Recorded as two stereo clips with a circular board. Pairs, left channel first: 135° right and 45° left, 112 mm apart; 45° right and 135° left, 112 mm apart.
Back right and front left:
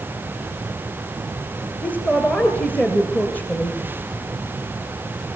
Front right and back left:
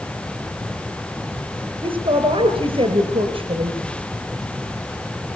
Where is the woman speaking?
150° left, 1.8 m.